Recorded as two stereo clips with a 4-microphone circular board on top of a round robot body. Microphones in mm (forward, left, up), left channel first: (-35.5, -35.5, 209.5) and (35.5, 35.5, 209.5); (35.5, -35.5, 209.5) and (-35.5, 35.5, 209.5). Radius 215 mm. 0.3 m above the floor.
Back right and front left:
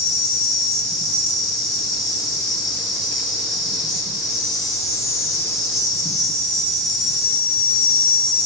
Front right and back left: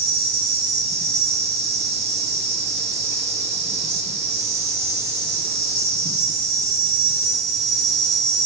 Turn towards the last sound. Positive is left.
turn(degrees=140)